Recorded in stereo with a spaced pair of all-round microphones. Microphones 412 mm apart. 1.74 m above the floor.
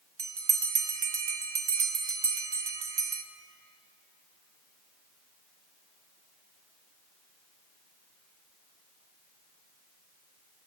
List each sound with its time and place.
0.2 s a bell: 75° right (ahead or behind), 0.5 m